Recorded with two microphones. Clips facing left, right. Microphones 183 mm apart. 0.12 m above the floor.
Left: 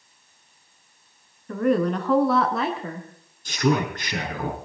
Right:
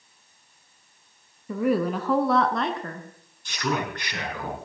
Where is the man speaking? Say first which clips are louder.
Left 6 dB; 40° left (ahead or behind), 4 m.